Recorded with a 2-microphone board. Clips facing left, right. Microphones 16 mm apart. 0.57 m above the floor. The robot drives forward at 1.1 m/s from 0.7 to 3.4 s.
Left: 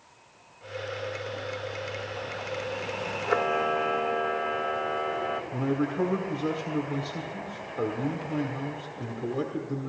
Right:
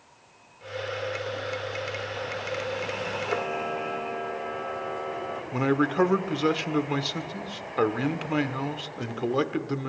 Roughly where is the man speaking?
Right.